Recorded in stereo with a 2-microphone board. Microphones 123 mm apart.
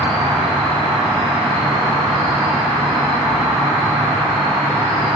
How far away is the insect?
About 2 m.